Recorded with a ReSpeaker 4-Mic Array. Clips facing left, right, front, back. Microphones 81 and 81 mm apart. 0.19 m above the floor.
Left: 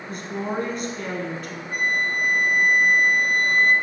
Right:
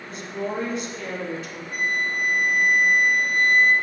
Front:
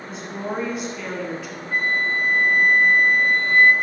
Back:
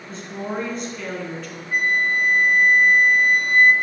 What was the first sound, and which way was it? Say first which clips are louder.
A woman speaking: left 1 dB, even; 80° left.